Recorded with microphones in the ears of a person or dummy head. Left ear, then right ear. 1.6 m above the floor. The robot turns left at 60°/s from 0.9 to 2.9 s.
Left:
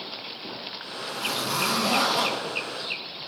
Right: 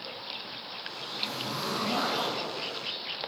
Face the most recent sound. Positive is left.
turn(degrees=30)